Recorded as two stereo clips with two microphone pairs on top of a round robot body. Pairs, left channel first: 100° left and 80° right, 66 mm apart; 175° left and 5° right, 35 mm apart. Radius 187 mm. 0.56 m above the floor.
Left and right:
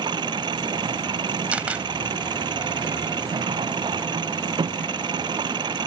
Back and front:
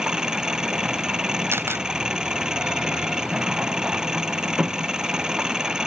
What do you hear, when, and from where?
0.0 s an engine running: 75° right
1.5 s a camera shutter: 10° right